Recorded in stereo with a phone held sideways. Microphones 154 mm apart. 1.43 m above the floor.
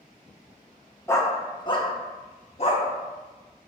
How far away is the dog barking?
About 0.9 m.